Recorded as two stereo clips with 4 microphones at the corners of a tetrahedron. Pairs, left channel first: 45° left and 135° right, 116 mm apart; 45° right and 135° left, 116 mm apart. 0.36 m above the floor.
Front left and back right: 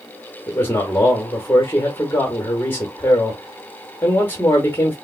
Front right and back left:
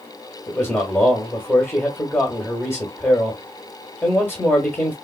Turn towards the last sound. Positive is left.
turn(degrees=-5)